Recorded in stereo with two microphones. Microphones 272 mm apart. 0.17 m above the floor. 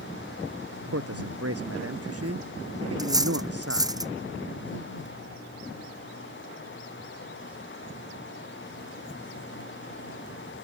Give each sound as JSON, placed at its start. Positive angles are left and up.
{"t": 0.9, "sound": "a man speaking", "side_deg": -65}
{"t": 3.0, "sound": "cutlery clinking", "side_deg": -15}